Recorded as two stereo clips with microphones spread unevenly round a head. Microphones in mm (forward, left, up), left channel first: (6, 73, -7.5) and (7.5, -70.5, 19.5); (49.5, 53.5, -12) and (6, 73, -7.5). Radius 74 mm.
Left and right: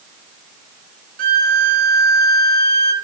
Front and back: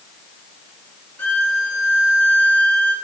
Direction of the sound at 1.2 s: 95° right.